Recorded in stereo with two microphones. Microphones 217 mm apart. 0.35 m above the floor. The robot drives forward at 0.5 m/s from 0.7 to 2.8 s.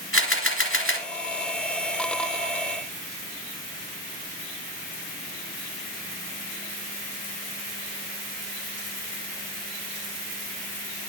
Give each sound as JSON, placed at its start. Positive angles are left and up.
{"t": 0.1, "sound": "a camera shutter", "side_deg": 80, "distance_m": 2.0}